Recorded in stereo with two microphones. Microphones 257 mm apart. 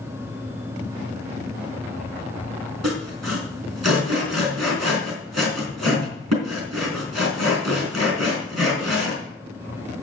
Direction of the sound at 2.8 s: 80° right.